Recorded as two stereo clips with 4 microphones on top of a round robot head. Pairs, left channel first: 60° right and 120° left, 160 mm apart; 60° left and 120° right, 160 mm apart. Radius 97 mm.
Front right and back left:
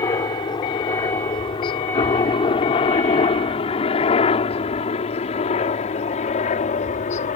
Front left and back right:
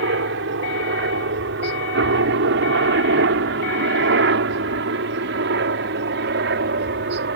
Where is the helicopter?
125° right; by 7.4 s 105° right.